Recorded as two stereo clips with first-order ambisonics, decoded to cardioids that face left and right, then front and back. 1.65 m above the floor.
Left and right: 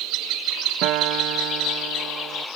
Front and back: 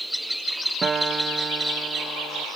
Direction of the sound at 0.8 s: 110° right.